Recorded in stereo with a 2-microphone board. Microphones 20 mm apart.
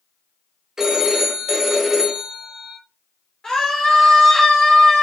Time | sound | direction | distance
0.8 | a phone ringing | 30° right (ahead or behind) | 0.9 m
3.4 | a scream | 35° left (ahead or behind) | 1.8 m